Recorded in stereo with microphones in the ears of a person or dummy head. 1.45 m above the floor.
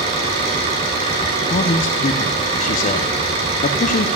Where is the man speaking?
35° left (ahead or behind), 0.7 m.